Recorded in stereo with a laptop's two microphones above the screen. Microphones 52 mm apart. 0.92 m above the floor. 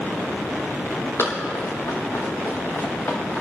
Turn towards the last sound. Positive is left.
turn(degrees=50)  # may be behind; listen again after turning